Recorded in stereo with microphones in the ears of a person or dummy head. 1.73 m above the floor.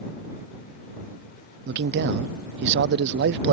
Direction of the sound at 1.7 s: 60° right (ahead or behind).